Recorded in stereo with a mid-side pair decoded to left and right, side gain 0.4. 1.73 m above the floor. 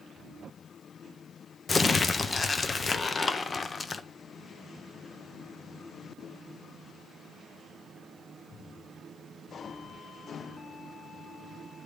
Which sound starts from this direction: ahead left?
Crumpling, at 1.7 s.